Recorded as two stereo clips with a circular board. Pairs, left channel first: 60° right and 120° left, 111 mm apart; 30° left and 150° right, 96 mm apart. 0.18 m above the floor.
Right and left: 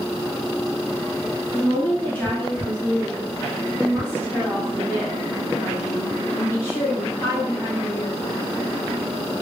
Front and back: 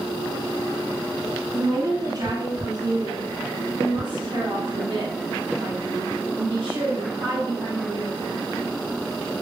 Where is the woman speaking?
130° right, 2 m; by 8.2 s 125° right, 6 m.